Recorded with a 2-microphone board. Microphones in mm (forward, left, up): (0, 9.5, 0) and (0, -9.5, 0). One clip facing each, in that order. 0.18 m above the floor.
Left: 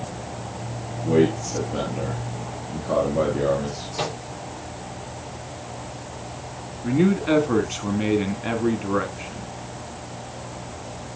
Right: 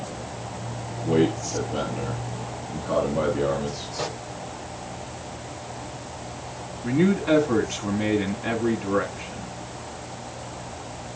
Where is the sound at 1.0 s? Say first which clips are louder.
Left 2 dB; 25° left (ahead or behind), 4 m.